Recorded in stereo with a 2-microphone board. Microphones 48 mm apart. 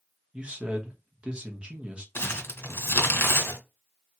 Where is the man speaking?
20° right (ahead or behind), 1.0 m.